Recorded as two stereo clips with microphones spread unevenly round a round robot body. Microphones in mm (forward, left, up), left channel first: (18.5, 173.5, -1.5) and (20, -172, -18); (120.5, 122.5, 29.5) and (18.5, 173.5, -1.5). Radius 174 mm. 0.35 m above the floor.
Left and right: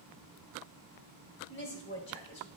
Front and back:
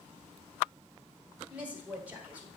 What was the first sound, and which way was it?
A woman speaking, 120° left.